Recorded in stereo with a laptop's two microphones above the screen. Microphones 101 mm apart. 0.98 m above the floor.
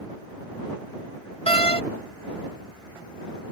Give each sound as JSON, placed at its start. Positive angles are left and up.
{"t": 1.5, "sound": "a door slam", "side_deg": 75}